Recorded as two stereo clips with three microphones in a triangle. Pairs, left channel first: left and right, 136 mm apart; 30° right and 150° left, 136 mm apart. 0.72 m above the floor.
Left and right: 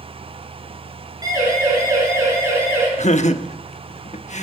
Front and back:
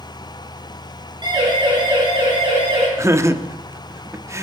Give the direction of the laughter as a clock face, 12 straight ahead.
9 o'clock.